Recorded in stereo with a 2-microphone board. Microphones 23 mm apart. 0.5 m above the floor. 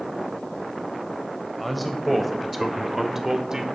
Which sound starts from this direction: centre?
A man speaking, at 1.6 s.